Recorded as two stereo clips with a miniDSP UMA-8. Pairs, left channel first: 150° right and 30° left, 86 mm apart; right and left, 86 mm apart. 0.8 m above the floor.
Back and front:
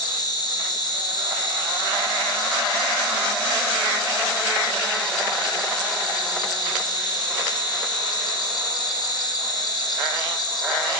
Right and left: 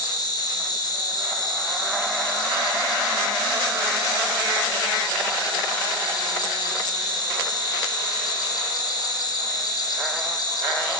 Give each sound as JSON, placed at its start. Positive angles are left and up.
{"t": 0.0, "sound": "an insect", "azimuth_deg": -120, "distance_m": 1.5}